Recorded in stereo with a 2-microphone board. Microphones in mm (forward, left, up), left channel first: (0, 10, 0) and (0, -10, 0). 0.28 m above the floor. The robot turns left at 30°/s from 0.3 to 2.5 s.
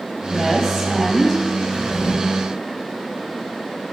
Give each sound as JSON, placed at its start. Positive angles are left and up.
{"t": 0.3, "sound": "a woman speaking", "azimuth_deg": -140, "distance_m": 1.2}
{"t": 1.7, "sound": "a drawer", "side_deg": 60, "distance_m": 2.0}